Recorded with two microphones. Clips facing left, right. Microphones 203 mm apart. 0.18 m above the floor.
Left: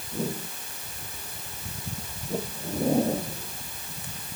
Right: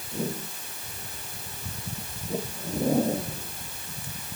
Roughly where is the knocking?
No knocking in this recording.